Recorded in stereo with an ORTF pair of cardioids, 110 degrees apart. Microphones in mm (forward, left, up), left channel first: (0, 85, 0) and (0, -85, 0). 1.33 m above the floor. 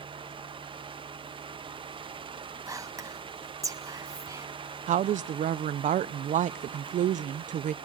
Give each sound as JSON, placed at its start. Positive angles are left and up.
{"t": 0.0, "sound": "a fan", "azimuth_deg": -30, "distance_m": 0.9}
{"t": 2.7, "sound": "whispering", "azimuth_deg": -20, "distance_m": 1.4}
{"t": 4.9, "sound": "a woman speaking", "azimuth_deg": -50, "distance_m": 0.5}